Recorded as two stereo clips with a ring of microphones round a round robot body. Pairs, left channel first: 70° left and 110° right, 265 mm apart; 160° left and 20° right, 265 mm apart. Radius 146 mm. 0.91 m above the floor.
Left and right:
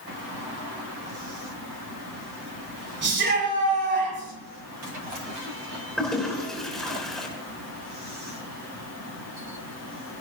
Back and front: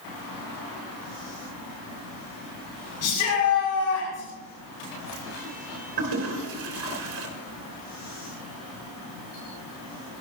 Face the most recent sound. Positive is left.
turn(degrees=-20)